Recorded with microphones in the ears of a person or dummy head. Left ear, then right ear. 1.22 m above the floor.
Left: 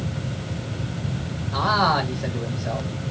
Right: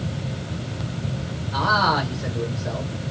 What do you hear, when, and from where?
1.5 s a man speaking: 5° left (ahead or behind), 1.1 m